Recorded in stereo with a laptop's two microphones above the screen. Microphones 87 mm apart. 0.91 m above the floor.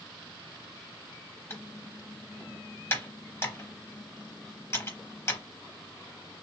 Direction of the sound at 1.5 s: 30° left (ahead or behind).